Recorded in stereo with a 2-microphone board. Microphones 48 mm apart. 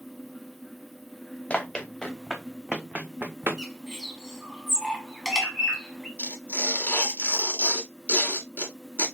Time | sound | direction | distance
1.5 | running footsteps | 20° left (ahead or behind) | 1.0 m
3.6 | a bird | 10° right (ahead or behind) | 1.1 m
6.2 | tearing paper | 35° left (ahead or behind) | 1.7 m